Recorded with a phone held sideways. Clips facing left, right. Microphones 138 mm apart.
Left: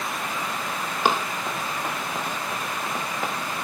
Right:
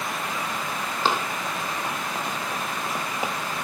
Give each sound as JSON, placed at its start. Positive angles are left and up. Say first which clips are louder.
{"t": 1.1, "sound": "running footsteps", "louder": "left 2 dB", "side_deg": 15, "distance_m": 3.0}